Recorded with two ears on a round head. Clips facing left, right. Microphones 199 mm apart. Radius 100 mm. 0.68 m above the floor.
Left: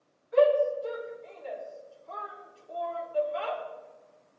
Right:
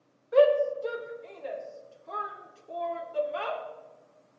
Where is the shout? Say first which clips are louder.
Right 1 dB; 65° right (ahead or behind), 2.5 m.